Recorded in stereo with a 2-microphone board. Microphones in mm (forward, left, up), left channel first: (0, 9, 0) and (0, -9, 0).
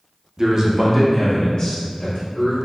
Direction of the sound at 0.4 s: 40° right (ahead or behind).